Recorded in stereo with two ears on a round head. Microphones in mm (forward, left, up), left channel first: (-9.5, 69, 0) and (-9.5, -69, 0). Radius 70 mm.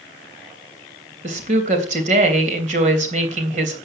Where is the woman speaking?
45° right (ahead or behind), 3 m.